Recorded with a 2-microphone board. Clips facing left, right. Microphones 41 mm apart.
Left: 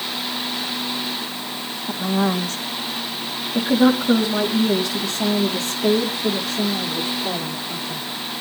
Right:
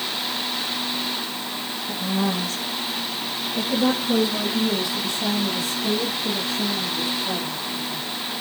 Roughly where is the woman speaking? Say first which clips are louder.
Left 4 dB; left.